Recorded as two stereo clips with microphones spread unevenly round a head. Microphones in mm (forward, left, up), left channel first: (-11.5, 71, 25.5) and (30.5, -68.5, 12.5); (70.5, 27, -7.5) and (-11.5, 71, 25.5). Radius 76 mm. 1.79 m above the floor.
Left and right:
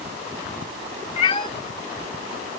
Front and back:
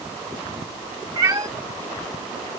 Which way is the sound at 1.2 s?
150° left.